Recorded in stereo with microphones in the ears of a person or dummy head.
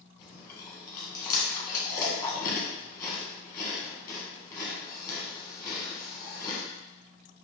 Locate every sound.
0.2 s chewing: 20° left (ahead or behind), 1.2 m